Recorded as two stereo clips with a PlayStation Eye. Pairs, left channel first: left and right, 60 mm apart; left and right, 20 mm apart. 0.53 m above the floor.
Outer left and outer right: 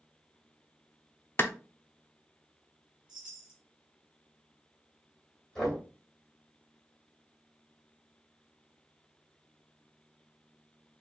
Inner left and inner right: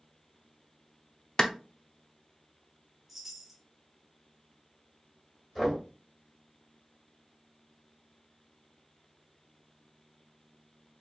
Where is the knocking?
15° left (ahead or behind), 2.5 m.